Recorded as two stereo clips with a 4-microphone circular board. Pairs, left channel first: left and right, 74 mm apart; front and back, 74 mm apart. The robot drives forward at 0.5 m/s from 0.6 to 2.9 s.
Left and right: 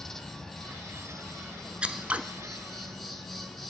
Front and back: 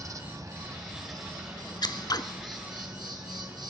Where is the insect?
170° left, 1.0 m; by 3.7 s 175° left, 2 m.